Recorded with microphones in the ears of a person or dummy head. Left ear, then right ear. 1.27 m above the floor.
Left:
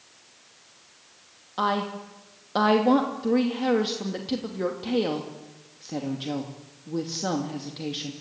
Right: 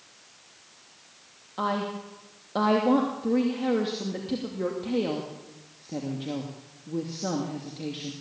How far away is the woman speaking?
About 2.5 m.